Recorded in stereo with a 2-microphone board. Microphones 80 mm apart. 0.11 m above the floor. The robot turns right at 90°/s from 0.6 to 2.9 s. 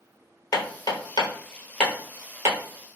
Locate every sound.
0.5 s hammering: 45° left (ahead or behind), 1.0 m; by 2.6 s 40° right (ahead or behind), 1.0 m